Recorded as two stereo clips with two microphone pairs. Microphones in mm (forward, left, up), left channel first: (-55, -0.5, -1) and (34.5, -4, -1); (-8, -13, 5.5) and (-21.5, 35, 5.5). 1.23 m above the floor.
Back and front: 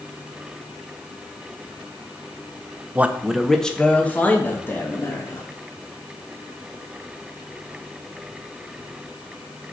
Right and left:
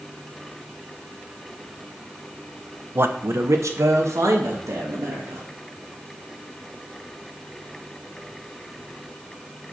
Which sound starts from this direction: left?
A man speaking, at 3.0 s.